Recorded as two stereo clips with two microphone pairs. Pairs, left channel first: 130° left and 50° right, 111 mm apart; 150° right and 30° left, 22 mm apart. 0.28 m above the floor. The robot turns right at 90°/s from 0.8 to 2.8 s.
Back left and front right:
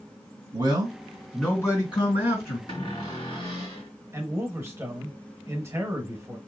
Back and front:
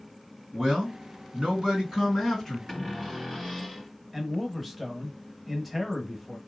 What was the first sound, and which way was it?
A man speaking, 15° right.